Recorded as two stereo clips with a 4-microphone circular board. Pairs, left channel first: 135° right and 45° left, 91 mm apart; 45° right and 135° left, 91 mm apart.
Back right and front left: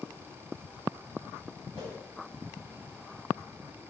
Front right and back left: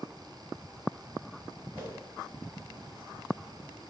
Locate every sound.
1.7 s a whoosh: 150° right, 1.6 m